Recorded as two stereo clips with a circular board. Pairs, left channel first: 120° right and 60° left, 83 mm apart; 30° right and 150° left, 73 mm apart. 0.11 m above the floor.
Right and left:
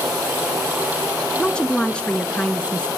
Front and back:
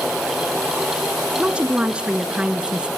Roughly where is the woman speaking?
Behind.